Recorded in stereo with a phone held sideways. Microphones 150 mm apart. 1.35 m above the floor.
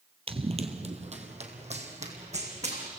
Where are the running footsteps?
40° right (ahead or behind), 1.8 m; by 2.9 s 50° right (ahead or behind), 5 m.